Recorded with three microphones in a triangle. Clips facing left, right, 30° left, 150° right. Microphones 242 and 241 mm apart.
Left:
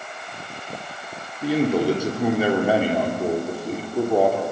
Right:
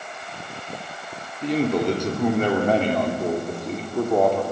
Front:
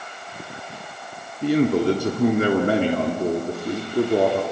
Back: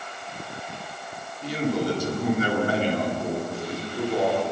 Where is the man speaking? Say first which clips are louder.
Left 2 dB, front 7 dB; 10° left, 1.8 m.